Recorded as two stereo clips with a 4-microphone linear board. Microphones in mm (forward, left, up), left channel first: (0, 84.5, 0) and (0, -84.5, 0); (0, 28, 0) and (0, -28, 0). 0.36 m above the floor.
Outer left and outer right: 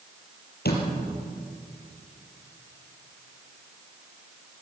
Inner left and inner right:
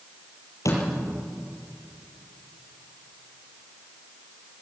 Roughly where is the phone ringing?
I don't hear a phone ringing.